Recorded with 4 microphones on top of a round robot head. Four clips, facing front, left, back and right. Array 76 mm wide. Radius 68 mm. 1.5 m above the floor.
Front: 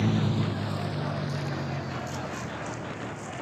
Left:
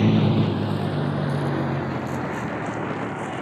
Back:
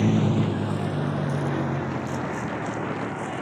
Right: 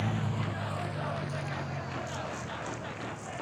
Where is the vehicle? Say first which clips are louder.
Left 14 dB, back 5 dB; 110° left; by 3.4 s 125° left.